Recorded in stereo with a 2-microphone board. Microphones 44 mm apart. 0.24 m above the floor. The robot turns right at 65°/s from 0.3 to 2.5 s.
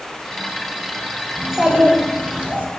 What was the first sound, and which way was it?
A child speaking, 165° right.